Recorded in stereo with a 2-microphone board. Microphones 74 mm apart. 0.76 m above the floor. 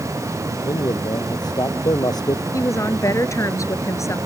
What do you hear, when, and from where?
0.6 s a man speaking: 65° left (ahead or behind); by 2.4 s 60° left (ahead or behind)
2.5 s a woman speaking: 45° left (ahead or behind)